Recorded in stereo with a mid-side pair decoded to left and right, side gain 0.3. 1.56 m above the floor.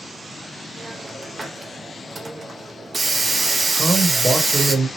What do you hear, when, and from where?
0.8 s a hiss: 40° right, 0.7 m
3.8 s a man speaking: 35° right, 1.2 m